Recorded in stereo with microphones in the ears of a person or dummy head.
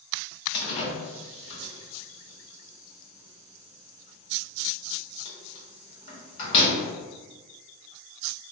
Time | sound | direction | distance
0.5 | a door slam | 40° left (ahead or behind) | 1.3 m